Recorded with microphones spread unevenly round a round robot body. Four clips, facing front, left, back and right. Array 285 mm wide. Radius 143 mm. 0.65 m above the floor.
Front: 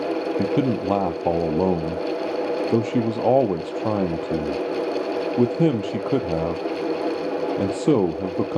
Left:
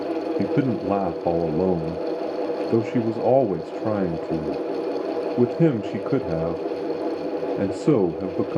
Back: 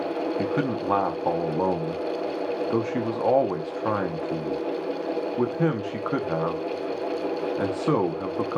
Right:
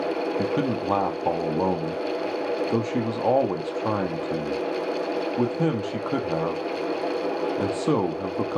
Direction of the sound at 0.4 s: 35° left.